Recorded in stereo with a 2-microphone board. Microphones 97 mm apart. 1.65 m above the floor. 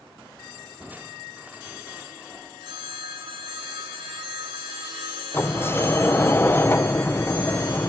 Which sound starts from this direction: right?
A phone ringing, at 2.6 s.